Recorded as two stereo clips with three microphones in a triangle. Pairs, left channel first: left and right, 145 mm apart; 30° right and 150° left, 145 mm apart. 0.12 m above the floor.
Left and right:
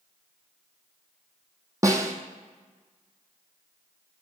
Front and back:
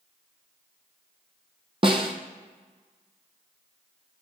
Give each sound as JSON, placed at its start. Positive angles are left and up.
{"t": 1.8, "sound": "a snare drum", "azimuth_deg": -160, "distance_m": 0.8}